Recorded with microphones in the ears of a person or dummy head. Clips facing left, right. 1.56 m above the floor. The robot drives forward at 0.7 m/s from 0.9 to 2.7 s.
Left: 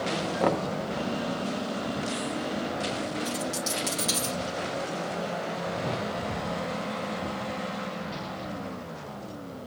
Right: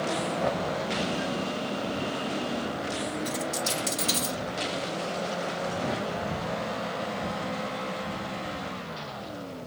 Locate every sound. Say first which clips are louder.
0.4 s knocking: left 5 dB; 60° left (ahead or behind), 0.6 m
3.2 s a dropped coin: even; 5° left (ahead or behind), 1.7 m
5.7 s a whoosh: right 1 dB; 10° right (ahead or behind), 0.5 m